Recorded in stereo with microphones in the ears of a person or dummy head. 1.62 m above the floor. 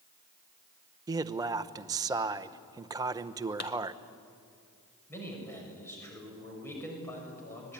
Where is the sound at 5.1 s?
15° left (ahead or behind), 6 m.